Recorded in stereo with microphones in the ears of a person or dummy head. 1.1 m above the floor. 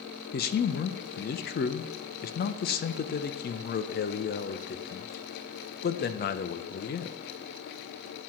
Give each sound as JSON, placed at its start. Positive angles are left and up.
{"t": 0.3, "sound": "a man speaking", "side_deg": 50, "distance_m": 0.7}